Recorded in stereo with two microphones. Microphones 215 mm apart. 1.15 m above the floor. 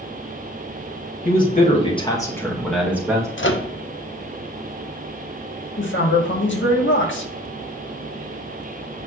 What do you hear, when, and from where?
1.2 s a man speaking: 45° left (ahead or behind), 2 m; by 3.3 s 15° right (ahead or behind), 2 m
3.4 s a microwave: 65° left (ahead or behind), 0.7 m
5.8 s a man speaking: 65° left (ahead or behind), 1.6 m